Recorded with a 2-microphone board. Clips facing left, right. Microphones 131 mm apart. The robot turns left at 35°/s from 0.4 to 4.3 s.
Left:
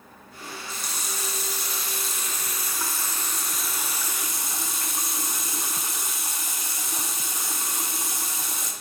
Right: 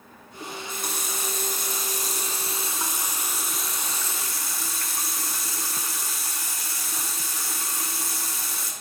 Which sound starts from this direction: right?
A running tap, at 0.4 s.